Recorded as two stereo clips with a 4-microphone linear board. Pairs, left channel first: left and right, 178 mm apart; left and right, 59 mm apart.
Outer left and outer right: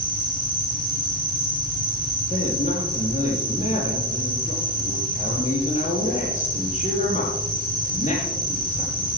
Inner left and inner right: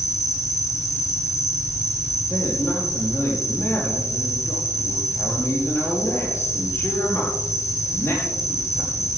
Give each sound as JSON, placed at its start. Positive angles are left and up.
{"t": 0.0, "sound": "an insect", "side_deg": 60, "distance_m": 5.5}
{"t": 2.3, "sound": "a man speaking", "side_deg": 45, "distance_m": 6.0}